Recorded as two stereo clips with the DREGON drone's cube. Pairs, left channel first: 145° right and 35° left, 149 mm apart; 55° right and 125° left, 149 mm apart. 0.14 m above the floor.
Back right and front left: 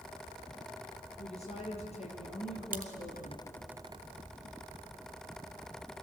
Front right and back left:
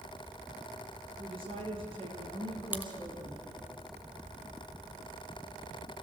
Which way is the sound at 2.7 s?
45° left.